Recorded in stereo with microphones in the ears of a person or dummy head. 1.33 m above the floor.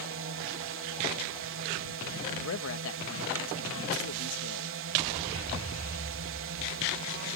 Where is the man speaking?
75° left (ahead or behind).